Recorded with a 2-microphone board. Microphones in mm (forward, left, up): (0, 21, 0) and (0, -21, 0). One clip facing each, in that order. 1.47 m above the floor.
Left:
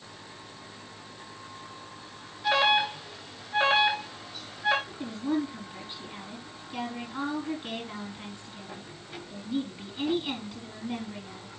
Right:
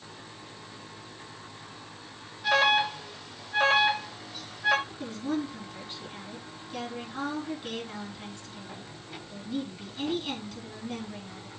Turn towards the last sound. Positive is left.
turn(degrees=15)  # may be behind; listen again after turning